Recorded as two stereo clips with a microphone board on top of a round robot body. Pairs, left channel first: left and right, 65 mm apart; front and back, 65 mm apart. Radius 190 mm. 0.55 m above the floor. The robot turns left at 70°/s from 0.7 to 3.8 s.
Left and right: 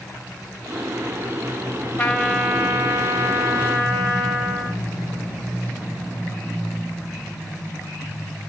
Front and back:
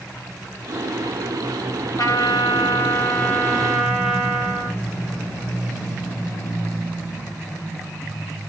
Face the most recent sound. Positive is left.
turn(degrees=-105)